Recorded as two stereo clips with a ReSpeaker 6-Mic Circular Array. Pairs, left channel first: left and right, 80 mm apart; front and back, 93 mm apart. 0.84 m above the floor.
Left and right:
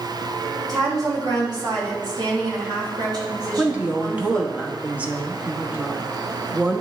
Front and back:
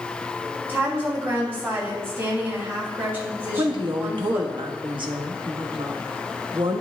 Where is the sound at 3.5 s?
160° right, 1.0 m.